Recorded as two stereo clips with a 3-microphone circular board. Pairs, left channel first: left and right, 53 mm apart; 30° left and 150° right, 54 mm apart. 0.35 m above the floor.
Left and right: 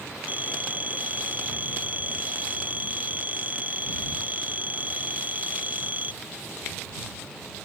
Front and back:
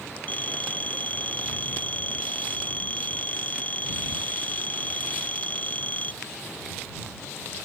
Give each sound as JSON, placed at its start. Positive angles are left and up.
{"t": 0.3, "sound": "a phone ringing", "azimuth_deg": -30}